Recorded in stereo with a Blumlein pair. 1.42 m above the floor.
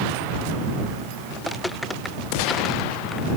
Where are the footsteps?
10° left; by 3.3 s straight ahead.